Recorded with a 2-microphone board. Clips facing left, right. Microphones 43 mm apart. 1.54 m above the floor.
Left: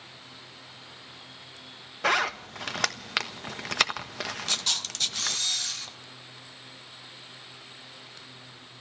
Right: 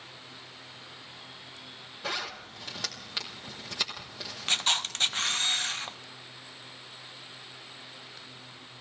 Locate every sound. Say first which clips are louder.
2.0 s a zipper: left 10 dB; 65° left (ahead or behind), 1.2 m
4.5 s a camera shutter: right 8 dB; 35° right (ahead or behind), 0.7 m